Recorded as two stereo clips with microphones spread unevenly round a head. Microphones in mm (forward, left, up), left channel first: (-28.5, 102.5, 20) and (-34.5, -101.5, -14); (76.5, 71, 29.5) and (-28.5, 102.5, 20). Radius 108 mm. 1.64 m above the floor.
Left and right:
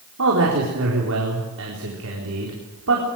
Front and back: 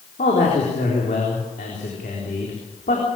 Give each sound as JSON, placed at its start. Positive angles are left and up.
{"t": 0.2, "sound": "a man speaking", "azimuth_deg": -60, "distance_m": 4.0}